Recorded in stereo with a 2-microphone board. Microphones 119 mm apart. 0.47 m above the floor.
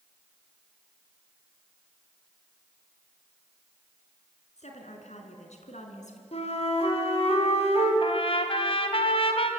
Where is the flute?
60° left (ahead or behind), 4 m.